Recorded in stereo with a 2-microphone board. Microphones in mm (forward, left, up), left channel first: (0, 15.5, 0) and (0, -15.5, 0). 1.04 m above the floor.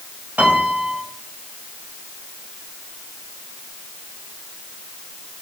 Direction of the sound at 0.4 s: 65° right (ahead or behind).